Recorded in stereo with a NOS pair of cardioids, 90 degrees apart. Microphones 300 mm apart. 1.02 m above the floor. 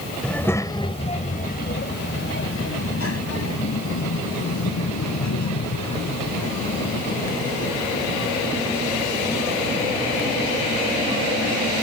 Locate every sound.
0.2 s a child speaking: straight ahead; by 11.5 s 80° left